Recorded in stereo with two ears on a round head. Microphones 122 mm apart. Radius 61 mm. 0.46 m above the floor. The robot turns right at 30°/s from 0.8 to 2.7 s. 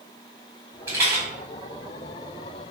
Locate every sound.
0.9 s a rattle: 20° right (ahead or behind), 1.5 m; by 1.2 s 30° right (ahead or behind), 1.5 m